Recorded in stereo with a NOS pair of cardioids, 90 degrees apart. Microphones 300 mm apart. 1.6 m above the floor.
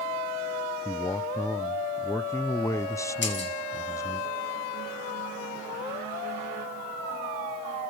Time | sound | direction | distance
0.8 | a man speaking | 10° left | 0.9 m
3.2 | breaking glass | 40° left | 5.5 m